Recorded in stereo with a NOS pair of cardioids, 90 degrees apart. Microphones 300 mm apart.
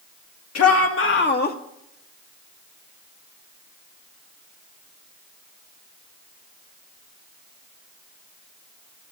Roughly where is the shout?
Ahead left.